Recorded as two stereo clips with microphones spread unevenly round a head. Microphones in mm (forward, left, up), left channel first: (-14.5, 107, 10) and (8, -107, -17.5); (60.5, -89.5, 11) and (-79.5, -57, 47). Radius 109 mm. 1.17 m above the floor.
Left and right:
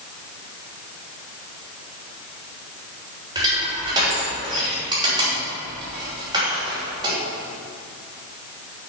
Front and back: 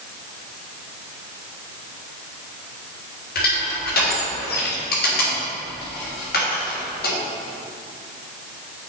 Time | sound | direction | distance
3.4 | crushing | 10° right | 3 m